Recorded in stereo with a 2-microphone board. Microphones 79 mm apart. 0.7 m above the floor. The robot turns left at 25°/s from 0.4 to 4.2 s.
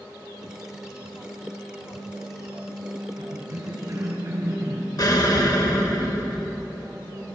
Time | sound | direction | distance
3.2 | a cough | 60° right (ahead or behind) | 3.5 m
5.0 | an explosion | 55° left (ahead or behind) | 1.6 m